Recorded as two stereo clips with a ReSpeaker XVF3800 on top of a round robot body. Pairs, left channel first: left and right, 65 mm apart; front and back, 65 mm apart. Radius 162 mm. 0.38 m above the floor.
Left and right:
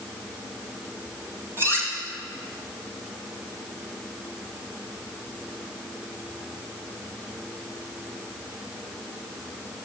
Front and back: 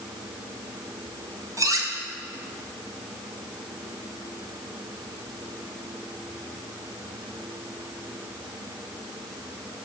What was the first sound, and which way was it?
Cutlery clinking, 140° right.